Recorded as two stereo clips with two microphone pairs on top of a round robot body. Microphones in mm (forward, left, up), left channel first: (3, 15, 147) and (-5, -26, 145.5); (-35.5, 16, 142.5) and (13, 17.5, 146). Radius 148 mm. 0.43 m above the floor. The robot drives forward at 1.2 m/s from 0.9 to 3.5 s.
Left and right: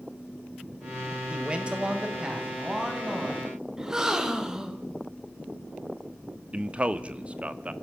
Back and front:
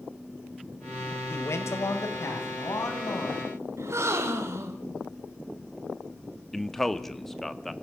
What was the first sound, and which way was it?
A man speaking, 165° right.